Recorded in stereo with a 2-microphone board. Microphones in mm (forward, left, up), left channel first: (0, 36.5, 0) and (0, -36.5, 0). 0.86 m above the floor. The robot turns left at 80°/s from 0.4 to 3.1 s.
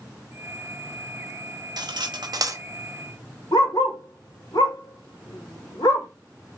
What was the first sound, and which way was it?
Cutlery clinking, 70° right (ahead or behind).